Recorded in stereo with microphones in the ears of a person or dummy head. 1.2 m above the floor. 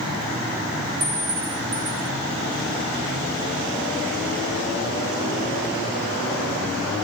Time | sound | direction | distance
1.0 | a clink | 10° right (ahead or behind) | 0.5 m